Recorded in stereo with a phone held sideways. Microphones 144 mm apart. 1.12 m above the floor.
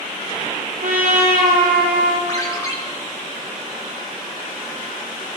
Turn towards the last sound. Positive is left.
turn(degrees=25)  # may be behind; listen again after turning